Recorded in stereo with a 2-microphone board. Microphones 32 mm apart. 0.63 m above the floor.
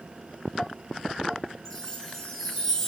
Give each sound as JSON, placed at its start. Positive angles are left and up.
{"t": 1.6, "sound": "a chime", "side_deg": 15, "distance_m": 0.6}